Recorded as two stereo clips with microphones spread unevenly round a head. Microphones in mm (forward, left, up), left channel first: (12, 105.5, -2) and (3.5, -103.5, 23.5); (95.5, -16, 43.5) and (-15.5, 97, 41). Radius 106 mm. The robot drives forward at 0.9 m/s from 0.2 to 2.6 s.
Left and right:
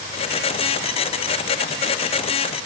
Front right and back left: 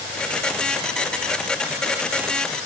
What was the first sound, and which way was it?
Only background noise.